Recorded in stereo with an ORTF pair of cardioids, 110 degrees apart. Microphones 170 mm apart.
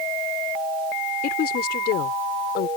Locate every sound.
1.2 s a woman speaking: 65° left; by 2.7 s 80° left